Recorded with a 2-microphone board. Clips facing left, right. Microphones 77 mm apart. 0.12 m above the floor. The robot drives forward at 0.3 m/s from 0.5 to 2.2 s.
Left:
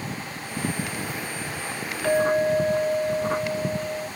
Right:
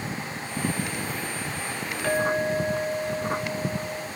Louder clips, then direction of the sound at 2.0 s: Left 4 dB; centre (ahead or behind).